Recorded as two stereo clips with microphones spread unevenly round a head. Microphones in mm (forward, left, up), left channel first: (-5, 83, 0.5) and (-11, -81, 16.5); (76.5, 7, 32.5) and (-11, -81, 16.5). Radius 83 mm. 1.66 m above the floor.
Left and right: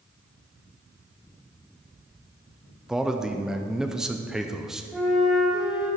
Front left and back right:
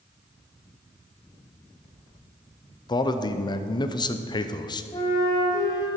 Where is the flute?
5° right, 3 m.